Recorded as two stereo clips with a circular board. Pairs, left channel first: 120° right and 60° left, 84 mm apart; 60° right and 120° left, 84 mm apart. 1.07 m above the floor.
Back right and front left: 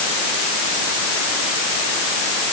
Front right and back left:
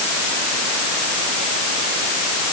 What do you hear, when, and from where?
Only background noise.